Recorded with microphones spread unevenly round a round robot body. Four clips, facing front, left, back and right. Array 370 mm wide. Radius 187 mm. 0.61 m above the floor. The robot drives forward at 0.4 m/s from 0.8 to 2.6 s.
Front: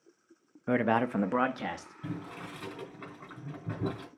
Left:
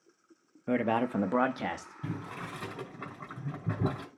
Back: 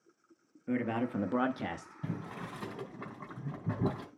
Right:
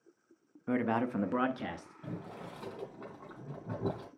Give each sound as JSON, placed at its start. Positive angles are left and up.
{"t": 0.7, "sound": "a man speaking", "azimuth_deg": 35, "distance_m": 0.6}
{"t": 2.0, "sound": "boiling", "azimuth_deg": 135, "distance_m": 3.0}